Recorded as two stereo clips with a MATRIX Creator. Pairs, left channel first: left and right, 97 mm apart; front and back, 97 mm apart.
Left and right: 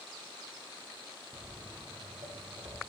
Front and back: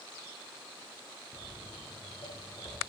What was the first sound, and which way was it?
Footsteps, 35° right.